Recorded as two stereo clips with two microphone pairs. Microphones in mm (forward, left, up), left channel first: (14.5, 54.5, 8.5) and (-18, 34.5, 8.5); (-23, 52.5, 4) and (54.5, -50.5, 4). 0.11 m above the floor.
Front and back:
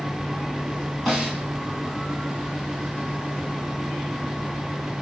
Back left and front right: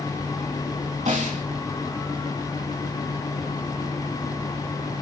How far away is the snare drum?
About 7.5 m.